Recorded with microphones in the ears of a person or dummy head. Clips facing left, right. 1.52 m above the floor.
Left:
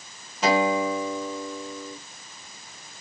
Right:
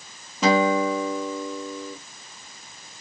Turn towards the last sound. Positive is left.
turn(degrees=-80)